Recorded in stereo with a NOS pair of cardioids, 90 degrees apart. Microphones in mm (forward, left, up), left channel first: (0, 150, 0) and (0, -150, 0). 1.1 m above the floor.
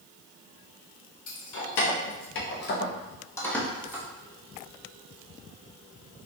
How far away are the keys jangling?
About 1.4 m.